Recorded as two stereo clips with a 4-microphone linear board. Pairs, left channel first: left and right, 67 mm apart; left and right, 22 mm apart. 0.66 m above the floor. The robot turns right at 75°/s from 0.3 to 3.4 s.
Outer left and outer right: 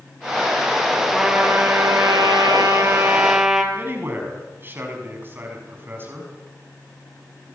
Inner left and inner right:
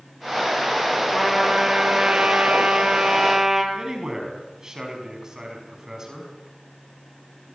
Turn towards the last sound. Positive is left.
turn(degrees=-35)  # may be behind; listen again after turning